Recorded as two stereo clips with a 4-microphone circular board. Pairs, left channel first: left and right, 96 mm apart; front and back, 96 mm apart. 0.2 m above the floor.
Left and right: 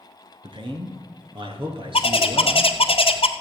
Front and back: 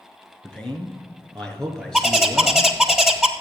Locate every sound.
0.4 s a man speaking: 80° right, 2.5 m; by 2.7 s 85° right, 3.5 m
1.9 s a bird: 90° left, 1.1 m